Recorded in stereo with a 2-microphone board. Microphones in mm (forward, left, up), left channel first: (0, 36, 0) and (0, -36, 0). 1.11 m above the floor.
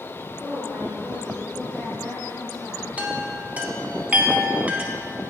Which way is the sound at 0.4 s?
5° right (ahead or behind).